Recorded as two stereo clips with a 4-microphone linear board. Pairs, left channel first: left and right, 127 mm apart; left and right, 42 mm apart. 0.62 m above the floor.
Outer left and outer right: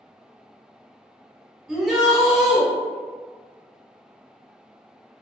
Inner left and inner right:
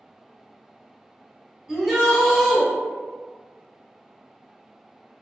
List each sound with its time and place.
1.7 s a shout: centre (ahead or behind), 1.7 m